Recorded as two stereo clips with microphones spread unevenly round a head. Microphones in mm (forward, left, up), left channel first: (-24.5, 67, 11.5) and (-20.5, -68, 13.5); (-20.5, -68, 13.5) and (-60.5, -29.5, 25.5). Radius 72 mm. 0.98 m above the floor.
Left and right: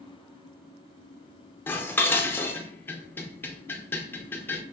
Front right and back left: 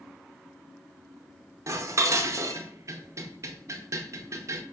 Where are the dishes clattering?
170° left, 0.5 m.